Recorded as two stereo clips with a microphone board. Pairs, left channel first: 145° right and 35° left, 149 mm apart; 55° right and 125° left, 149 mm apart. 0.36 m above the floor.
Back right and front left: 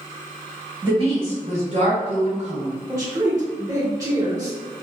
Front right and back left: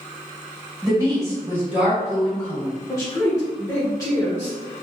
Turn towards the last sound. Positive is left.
turn(degrees=-10)